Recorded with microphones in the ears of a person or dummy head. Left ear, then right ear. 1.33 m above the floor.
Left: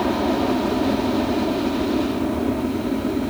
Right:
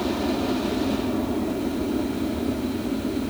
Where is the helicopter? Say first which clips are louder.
Left 5 dB; 60° left (ahead or behind); by 3.3 s 55° left (ahead or behind).